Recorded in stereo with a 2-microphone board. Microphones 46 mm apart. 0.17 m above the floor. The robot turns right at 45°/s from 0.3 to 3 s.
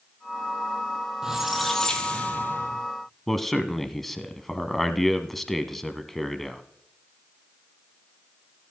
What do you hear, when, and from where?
1.2 s a squeak: 15° right, 1.7 m; by 2.9 s 60° left, 1.7 m
3.3 s a man speaking: 5° left (ahead or behind), 1.1 m